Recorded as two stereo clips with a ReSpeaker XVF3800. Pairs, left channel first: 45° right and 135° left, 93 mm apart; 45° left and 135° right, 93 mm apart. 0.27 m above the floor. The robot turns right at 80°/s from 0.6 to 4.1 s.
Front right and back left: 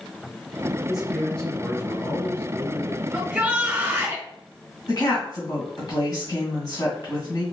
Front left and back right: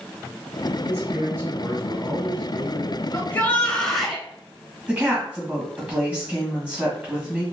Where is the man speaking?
155° right, 1.6 m; by 3.0 s 15° left, 1.6 m.